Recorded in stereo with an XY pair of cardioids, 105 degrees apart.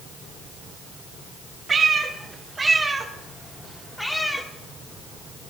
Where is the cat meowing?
40° right, 1.6 m; by 4.5 s 20° left, 1.3 m.